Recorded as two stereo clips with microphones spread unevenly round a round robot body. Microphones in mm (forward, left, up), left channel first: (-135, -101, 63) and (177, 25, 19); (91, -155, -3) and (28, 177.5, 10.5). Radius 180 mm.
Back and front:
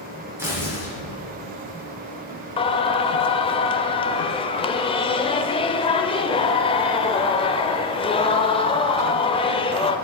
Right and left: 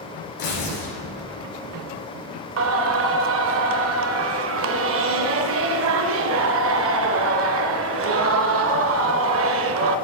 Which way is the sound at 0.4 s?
60° right.